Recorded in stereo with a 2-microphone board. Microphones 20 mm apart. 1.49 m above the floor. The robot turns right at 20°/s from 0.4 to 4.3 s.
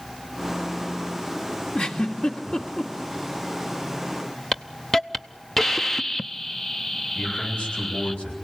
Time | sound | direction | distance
1.8 | a giggle | 75° left (ahead or behind) | 2.5 m
4.5 | a hiss | 15° left (ahead or behind) | 0.6 m
7.2 | a man speaking | 85° left | 8.5 m